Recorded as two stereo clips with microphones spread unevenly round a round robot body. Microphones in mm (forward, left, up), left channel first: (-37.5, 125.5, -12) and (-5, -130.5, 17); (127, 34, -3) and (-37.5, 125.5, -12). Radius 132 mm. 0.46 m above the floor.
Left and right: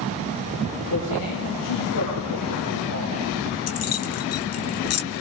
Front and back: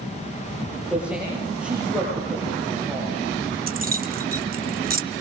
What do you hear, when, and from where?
0.9 s a man speaking: 65° left, 10 m
3.7 s keys jangling: 115° left, 2 m